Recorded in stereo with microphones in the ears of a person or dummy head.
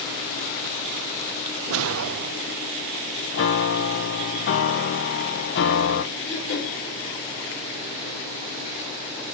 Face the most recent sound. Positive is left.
turn(degrees=70)  # may be behind; listen again after turning